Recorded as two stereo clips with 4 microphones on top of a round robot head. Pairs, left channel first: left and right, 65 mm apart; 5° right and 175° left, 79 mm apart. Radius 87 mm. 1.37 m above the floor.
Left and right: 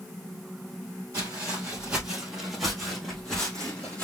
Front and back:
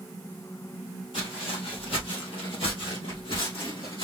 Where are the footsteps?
30° right, 2.5 m; by 4.0 s 15° left, 3 m.